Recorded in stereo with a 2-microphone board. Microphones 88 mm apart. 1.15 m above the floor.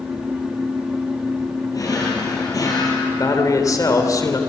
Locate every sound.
1.7 s a drawer: 45° left (ahead or behind), 6.5 m
3.1 s a man speaking: 40° left (ahead or behind), 3 m